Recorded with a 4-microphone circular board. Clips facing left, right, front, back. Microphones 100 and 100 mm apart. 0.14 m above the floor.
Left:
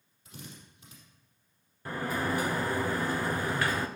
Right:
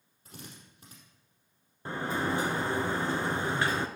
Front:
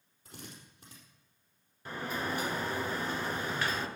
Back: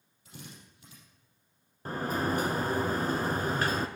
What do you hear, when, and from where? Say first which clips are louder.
0.2 s a drill: left 1 dB, even; 45° right, 4.5 m
1.9 s a sliding door: even, back 5 dB; 145° right, 0.9 m